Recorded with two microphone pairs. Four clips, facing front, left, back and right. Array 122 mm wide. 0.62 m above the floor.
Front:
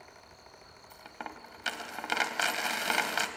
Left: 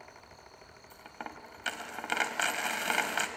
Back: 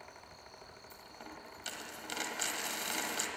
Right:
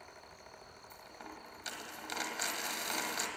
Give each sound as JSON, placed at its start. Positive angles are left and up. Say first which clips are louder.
{"t": 0.9, "sound": "a dropped coin", "louder": "left 7 dB, front 9 dB", "azimuth_deg": 35, "distance_m": 1.6}